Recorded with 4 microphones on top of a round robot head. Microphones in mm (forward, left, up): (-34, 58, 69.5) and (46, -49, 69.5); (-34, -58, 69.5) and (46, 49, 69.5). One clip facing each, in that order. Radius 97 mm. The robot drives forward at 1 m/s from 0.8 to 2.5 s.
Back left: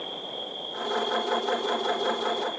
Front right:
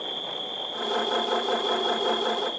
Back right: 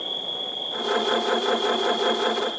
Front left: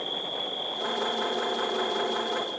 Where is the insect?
50° right, 7 m; by 2.6 s 65° right, 6 m.